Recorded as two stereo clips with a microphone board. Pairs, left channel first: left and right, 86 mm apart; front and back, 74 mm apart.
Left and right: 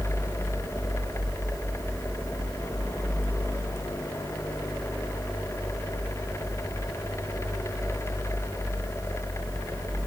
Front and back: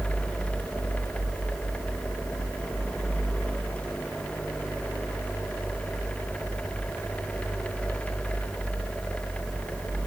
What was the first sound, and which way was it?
Only background noise.